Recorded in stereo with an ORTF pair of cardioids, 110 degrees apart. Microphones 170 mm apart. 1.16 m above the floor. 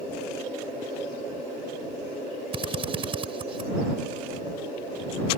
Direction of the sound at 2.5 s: 30° right.